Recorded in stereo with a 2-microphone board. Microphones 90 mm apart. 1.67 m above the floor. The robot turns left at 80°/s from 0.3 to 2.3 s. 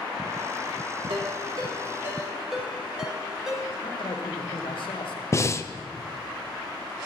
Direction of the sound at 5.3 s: 30° left (ahead or behind).